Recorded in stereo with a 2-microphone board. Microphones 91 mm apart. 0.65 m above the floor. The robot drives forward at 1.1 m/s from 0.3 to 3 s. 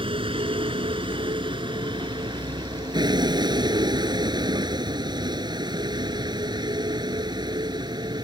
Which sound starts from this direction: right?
A vehicle, at 0.0 s.